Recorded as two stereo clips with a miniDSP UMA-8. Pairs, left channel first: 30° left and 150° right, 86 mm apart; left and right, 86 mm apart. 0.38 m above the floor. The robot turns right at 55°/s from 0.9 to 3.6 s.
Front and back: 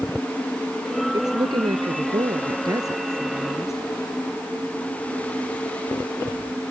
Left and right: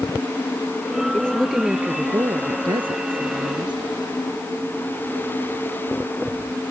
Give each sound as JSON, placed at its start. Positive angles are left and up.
{"t": 1.1, "sound": "a woman speaking", "azimuth_deg": 160}